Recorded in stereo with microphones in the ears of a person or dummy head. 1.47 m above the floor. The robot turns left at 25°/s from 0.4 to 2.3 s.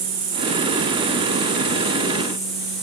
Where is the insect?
130° right, 1.5 m; by 2.8 s straight behind, 1.5 m.